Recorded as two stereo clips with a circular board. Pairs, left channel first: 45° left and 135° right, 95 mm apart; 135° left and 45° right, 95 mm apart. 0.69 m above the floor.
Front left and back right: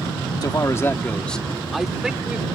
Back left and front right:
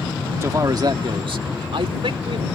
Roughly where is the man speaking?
Ahead.